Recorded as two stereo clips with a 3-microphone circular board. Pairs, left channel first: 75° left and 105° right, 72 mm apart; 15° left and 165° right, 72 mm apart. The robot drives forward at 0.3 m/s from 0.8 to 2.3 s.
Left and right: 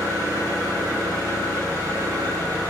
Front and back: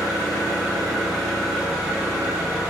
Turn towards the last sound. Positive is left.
turn(degrees=-90)